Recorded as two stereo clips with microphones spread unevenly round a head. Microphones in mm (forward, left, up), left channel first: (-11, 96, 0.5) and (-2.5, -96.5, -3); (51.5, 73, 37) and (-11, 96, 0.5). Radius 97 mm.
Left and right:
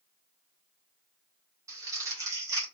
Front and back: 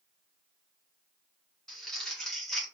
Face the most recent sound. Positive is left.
turn(degrees=-20)